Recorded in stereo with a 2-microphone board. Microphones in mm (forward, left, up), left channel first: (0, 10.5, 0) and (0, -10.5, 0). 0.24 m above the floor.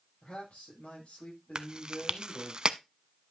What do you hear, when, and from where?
0.2 s a man speaking: 80° left, 8.5 m
1.6 s chewing: 45° right (ahead or behind), 0.5 m